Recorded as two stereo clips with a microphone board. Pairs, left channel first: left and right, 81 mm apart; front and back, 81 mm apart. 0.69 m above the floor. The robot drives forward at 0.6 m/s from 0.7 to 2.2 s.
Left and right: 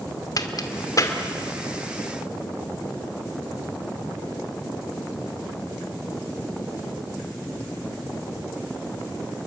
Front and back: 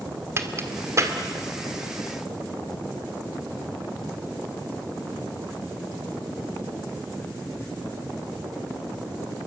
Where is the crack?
125° left, 1.9 m; by 1.2 s 135° left, 2 m.